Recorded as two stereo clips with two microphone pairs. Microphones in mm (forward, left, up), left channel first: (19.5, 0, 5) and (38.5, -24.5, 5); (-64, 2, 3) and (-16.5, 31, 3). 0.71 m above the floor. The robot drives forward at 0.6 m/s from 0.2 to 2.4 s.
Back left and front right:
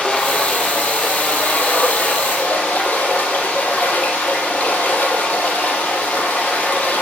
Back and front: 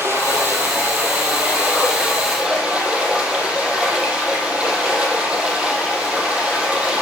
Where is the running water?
75° left, 3 m; by 7.0 s 105° left, 3 m.